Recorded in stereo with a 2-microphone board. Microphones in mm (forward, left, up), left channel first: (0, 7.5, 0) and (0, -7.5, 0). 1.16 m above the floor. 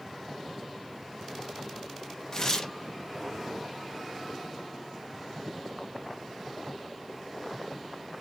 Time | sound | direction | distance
2.3 | tearing paper | 35° left (ahead or behind) | 0.8 m